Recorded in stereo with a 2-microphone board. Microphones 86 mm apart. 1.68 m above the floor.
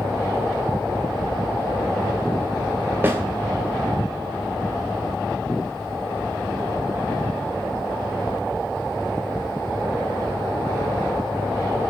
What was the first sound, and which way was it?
A snare drum, 25° right (ahead or behind).